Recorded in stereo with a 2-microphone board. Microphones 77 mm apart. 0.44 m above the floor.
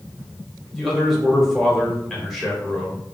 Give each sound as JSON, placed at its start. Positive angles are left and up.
{"t": 0.8, "sound": "a man speaking", "side_deg": 0, "distance_m": 0.9}